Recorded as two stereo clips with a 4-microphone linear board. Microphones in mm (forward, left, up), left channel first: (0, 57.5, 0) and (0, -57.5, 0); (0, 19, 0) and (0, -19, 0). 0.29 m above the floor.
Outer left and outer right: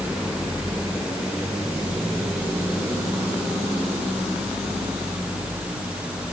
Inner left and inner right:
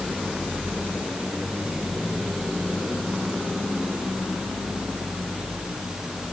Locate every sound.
Only background noise.